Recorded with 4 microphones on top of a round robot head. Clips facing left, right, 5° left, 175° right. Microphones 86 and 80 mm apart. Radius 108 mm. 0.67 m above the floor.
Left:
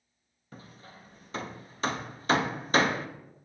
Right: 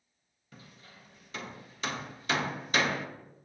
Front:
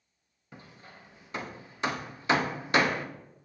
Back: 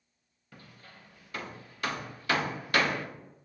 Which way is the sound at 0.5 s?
65° left.